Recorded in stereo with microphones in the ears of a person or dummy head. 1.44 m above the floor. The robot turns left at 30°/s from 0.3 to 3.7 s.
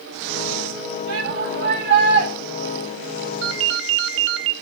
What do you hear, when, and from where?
1.1 s a shout: 115° right, 4.5 m; by 2.3 s 155° right, 4.5 m
3.4 s a ringtone: 65° right (ahead or behind), 0.7 m